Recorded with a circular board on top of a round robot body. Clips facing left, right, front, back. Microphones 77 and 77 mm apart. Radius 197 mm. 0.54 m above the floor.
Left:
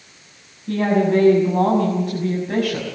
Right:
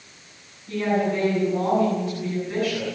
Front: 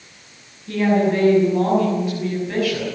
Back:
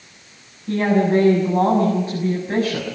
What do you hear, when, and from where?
0.7 s a woman speaking: 120° left, 6.5 m